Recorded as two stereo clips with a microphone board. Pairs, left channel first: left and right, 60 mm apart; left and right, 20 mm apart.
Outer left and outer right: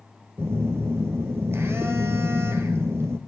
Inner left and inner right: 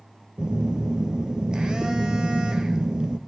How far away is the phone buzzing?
About 0.8 m.